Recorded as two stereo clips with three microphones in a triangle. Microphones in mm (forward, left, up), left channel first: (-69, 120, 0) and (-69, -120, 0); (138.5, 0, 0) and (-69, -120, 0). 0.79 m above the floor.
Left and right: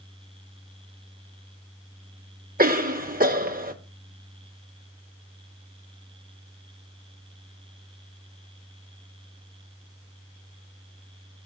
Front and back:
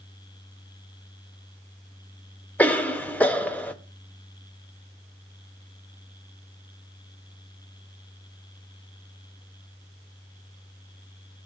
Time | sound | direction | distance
2.6 | a cough | 55° right | 0.7 m